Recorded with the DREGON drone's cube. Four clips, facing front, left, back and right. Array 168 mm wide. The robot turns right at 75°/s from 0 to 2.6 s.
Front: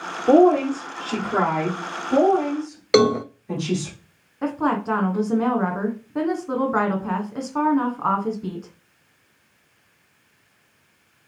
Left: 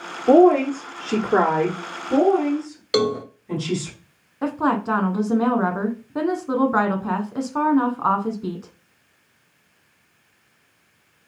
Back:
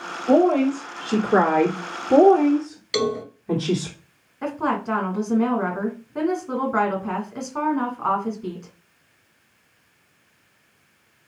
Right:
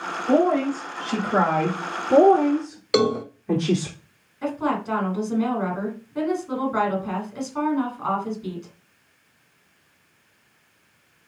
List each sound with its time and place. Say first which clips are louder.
0.3 s a woman speaking: left 6 dB, front 2 dB; 55° left, 2.5 m; by 3.9 s 130° right, 2.5 m
2.9 s a cowbell: right 1 dB, front 7 dB; 15° right, 0.5 m
4.4 s a woman speaking: left 3 dB, front 2 dB; 80° left, 1.5 m